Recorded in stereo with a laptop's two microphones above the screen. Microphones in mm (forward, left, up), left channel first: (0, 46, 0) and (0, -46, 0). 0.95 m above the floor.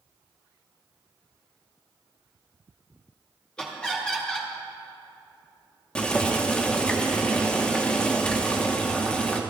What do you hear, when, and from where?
3.6 s laughter: 10° left (ahead or behind), 2 m
6.0 s boiling: 10° left (ahead or behind), 0.9 m